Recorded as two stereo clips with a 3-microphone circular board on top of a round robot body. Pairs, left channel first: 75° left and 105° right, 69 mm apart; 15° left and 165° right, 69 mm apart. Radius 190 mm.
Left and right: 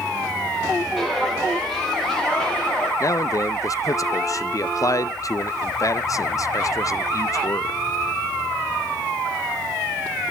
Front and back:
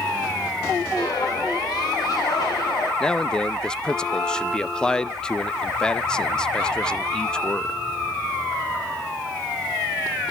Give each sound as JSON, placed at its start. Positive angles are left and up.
{"t": 1.0, "sound": "footsteps", "azimuth_deg": -15, "distance_m": 9.5}
{"t": 3.0, "sound": "a man speaking", "azimuth_deg": 90, "distance_m": 0.9}